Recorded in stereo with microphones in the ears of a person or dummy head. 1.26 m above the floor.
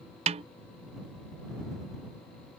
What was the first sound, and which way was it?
A snare drum, 30° right (ahead or behind).